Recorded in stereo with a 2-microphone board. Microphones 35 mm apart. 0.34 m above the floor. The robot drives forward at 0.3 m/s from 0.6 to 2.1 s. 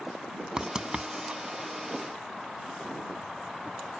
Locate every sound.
0.6 s writing: 25° right (ahead or behind); by 1.4 s 30° right (ahead or behind)